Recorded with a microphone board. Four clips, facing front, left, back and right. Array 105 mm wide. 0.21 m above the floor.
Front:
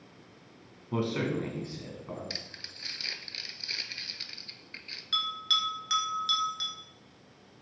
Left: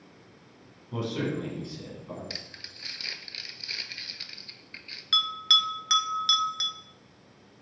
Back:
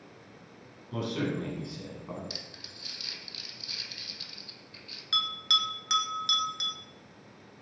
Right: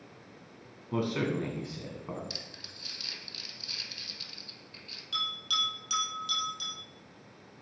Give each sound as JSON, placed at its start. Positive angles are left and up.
{"t": 0.9, "sound": "a man speaking", "azimuth_deg": -35, "distance_m": 1.9}
{"t": 2.3, "sound": "crumpling", "azimuth_deg": 50, "distance_m": 0.5}
{"t": 5.1, "sound": "a bell", "azimuth_deg": 100, "distance_m": 0.9}